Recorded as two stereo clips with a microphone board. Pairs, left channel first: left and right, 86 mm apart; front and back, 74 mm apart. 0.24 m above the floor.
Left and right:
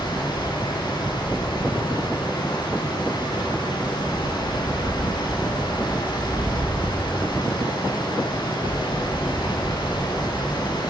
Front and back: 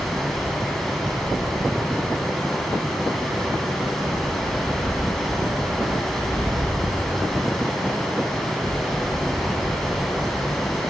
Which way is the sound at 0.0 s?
85° left.